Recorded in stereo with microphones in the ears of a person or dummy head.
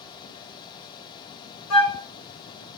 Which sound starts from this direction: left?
A flute, at 1.7 s.